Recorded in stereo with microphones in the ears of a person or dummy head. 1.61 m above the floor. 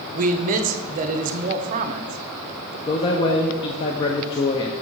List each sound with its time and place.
0.1 s a man speaking: 40° right (ahead or behind), 0.8 m
2.9 s a man speaking: 20° left (ahead or behind), 0.5 m